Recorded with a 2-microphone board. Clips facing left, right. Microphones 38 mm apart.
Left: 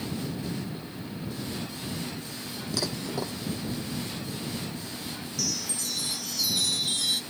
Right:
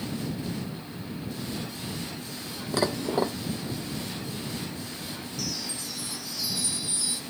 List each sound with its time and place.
2.7 s dishes clattering: 35° right (ahead or behind)
5.4 s a chime: 65° left (ahead or behind)